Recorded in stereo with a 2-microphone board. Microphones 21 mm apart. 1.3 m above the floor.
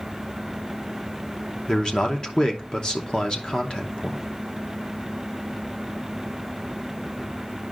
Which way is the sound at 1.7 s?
40° left (ahead or behind).